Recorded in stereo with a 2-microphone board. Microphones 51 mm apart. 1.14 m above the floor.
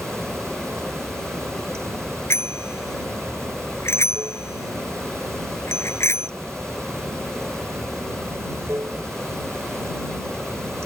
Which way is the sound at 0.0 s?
65° right (ahead or behind).